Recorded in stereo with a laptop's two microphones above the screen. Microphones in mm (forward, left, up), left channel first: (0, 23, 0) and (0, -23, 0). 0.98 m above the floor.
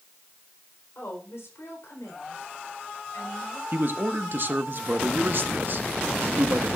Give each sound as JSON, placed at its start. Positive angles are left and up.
{"t": 0.9, "sound": "a woman speaking", "side_deg": 75, "distance_m": 4.5}
{"t": 3.7, "sound": "a man speaking", "side_deg": -50, "distance_m": 1.3}